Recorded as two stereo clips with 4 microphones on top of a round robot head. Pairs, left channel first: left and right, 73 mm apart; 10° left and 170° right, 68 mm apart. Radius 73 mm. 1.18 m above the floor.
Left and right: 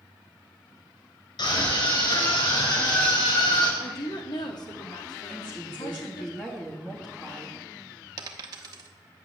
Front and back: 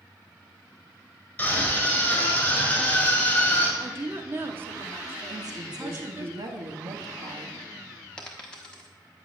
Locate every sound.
1.4 s a scream: 75° left, 6.5 m
3.8 s a woman speaking: 130° left, 2 m
5.3 s a woman speaking: 165° left, 3 m
8.2 s a dropped coin: 75° right, 0.8 m